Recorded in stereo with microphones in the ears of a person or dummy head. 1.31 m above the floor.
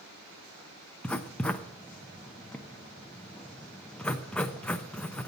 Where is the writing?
10° left (ahead or behind), 0.5 m.